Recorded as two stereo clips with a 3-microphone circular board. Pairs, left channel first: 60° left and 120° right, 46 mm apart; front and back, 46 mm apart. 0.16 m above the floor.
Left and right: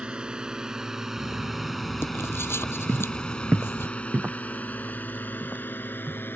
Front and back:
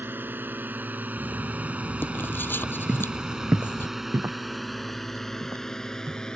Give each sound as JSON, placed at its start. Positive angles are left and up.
{"t": 0.0, "sound": "a drone", "azimuth_deg": 180}
{"t": 1.2, "sound": "writing", "azimuth_deg": 40}
{"t": 2.9, "sound": "footsteps", "azimuth_deg": -115}